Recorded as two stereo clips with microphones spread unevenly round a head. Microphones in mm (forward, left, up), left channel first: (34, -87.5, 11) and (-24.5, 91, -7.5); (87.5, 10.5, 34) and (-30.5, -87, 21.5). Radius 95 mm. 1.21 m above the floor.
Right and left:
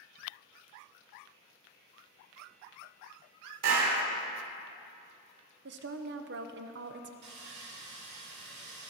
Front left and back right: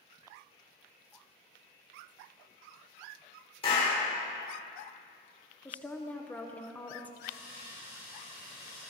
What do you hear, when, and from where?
3.6 s a clap: 100° left, 4 m
5.7 s a woman speaking: 120° left, 0.9 m
7.2 s sawing: 145° left, 5 m